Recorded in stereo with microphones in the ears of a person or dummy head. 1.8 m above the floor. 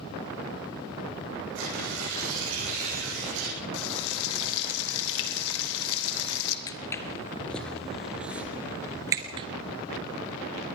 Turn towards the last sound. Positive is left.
turn(degrees=-30)  # may be behind; listen again after turning